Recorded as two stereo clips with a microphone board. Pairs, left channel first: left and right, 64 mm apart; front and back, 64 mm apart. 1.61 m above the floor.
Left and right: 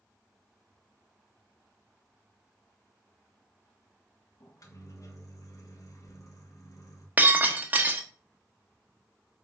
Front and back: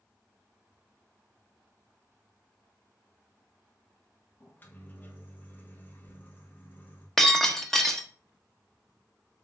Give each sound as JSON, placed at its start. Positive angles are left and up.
{"t": 4.4, "sound": "a microwave", "azimuth_deg": 60, "distance_m": 1.6}
{"t": 7.2, "sound": "breaking glass", "azimuth_deg": -75, "distance_m": 1.1}